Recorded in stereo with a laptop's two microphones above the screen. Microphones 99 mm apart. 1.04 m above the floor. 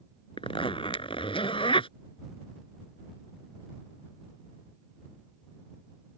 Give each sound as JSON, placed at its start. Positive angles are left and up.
{"t": 0.4, "sound": "a zipper", "side_deg": 60}